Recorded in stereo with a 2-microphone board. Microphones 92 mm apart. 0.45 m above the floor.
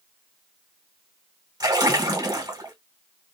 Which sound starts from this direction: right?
A splash, at 1.6 s.